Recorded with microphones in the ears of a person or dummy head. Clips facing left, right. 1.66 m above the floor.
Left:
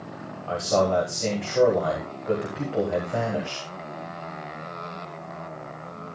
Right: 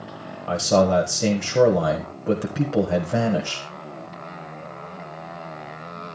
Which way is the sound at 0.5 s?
55° right (ahead or behind).